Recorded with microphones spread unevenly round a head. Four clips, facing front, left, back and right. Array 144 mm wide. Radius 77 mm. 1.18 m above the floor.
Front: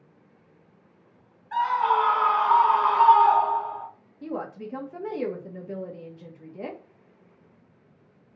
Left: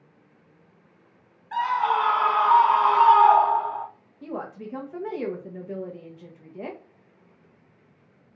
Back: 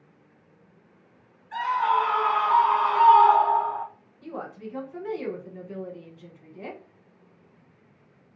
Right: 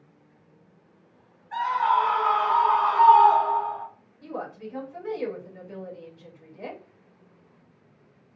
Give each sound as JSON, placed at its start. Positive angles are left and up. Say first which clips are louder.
{"t": 1.5, "sound": "a scream", "louder": "even, front 1 dB", "azimuth_deg": 55, "distance_m": 2.0}
{"t": 4.2, "sound": "a woman speaking", "louder": "left 1 dB, front 3 dB", "azimuth_deg": 55, "distance_m": 1.1}